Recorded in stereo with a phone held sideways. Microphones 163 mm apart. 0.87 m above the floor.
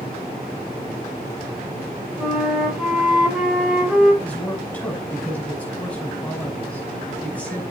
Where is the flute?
5° right (ahead or behind), 4 m.